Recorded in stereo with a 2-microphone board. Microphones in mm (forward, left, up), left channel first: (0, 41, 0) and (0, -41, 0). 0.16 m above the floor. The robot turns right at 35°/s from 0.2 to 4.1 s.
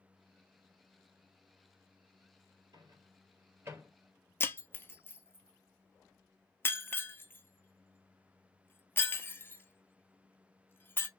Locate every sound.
2.7 s a microwave: 60° right (ahead or behind), 2 m; by 3.9 s 25° right (ahead or behind), 2 m
4.4 s breaking glass: 30° left (ahead or behind), 0.5 m